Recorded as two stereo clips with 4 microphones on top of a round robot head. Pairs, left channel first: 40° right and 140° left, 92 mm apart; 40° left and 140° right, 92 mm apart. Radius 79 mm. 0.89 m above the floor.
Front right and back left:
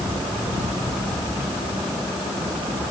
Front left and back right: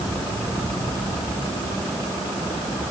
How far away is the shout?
No shout in this recording.